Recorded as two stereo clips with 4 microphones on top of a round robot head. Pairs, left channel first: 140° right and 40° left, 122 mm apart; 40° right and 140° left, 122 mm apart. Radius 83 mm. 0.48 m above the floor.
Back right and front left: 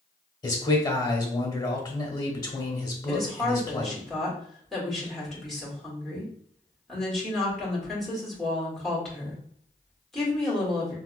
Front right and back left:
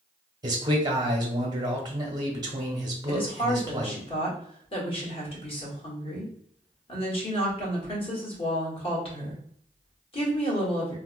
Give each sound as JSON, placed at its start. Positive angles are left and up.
{"t": 0.4, "sound": "a man speaking", "azimuth_deg": 180, "distance_m": 1.0}
{"t": 3.1, "sound": "a woman speaking", "azimuth_deg": -55, "distance_m": 1.8}